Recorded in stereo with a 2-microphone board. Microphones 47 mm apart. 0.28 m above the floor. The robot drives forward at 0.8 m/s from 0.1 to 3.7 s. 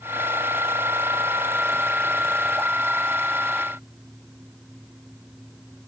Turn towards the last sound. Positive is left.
No sound to turn to.